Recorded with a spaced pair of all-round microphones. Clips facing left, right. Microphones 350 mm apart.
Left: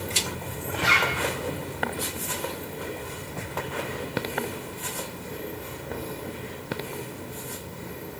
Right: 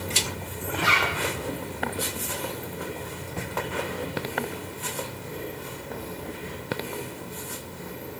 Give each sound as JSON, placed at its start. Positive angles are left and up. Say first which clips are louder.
{"t": 0.8, "sound": "a zipper", "louder": "even", "side_deg": -70, "distance_m": 1.7}